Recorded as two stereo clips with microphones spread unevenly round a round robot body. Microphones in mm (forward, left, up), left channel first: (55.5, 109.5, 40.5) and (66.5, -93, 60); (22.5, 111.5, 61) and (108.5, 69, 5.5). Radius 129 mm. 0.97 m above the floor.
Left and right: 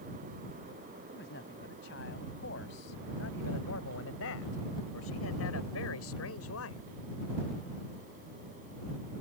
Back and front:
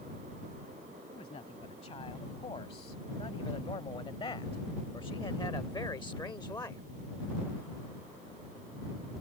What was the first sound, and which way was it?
A man speaking, 140° left.